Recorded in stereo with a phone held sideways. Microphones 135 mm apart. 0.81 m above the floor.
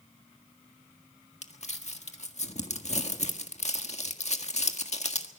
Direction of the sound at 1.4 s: 55° left (ahead or behind).